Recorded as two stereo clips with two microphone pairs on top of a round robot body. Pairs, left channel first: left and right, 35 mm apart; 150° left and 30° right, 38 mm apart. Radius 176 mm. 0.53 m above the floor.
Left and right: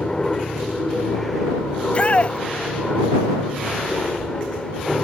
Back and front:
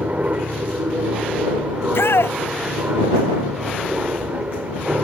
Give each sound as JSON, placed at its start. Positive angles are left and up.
{"t": 0.0, "sound": "an aircraft", "azimuth_deg": 20}
{"t": 1.8, "sound": "a shout", "azimuth_deg": 145}